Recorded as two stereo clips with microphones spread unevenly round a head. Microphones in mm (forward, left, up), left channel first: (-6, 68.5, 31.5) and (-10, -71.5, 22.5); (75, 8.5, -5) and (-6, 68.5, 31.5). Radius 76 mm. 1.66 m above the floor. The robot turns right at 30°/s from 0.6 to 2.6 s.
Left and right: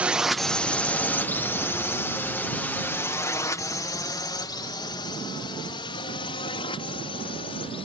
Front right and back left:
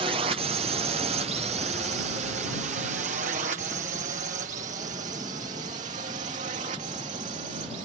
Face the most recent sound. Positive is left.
turn(degrees=140)